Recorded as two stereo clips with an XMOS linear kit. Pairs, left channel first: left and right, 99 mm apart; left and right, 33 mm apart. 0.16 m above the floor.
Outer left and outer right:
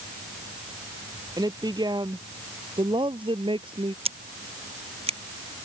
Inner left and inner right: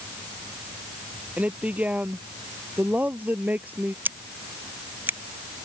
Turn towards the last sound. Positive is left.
turn(degrees=-80)